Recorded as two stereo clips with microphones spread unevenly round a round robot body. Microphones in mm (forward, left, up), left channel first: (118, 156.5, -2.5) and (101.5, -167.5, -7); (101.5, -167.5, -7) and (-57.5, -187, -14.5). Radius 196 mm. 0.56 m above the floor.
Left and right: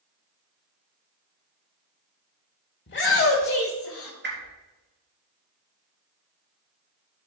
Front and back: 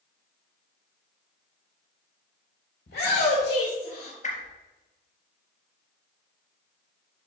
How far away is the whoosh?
About 3.5 m.